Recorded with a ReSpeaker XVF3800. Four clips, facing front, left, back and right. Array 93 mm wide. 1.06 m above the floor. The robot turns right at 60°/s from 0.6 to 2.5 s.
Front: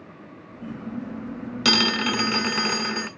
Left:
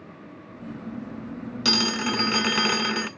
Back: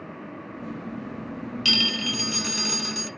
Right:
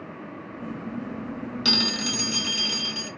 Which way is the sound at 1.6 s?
5° left.